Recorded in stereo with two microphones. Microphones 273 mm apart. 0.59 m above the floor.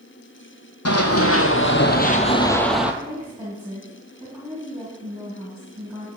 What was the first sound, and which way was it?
Running footsteps, 65° left (ahead or behind).